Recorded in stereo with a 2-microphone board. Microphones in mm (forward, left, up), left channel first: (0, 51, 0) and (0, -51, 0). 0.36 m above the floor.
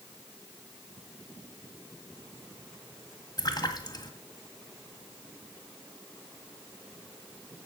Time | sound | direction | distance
3.4 | a splash | 40° left (ahead or behind) | 1.7 m